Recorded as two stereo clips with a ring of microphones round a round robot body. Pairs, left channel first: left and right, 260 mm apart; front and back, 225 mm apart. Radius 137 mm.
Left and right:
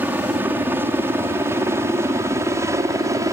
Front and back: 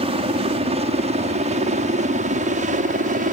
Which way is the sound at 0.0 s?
165° right.